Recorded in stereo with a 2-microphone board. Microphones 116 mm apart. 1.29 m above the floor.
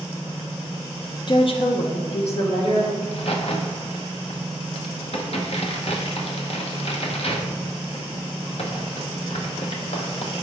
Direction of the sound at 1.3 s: 45° left (ahead or behind).